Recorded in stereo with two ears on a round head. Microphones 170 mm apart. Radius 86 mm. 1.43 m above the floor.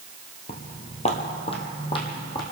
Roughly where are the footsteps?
Left.